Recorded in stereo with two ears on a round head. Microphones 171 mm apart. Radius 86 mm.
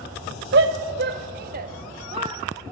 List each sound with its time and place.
0.5 s a shout: 60° right (ahead or behind), 1.9 m; by 2.7 s 15° right (ahead or behind), 1.4 m